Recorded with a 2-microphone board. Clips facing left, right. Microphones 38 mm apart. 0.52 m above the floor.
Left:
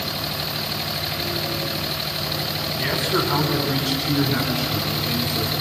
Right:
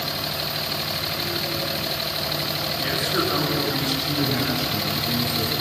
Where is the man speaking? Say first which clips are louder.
Left 2 dB; 70° left (ahead or behind), 5 m; by 5.5 s 80° left, 6.5 m.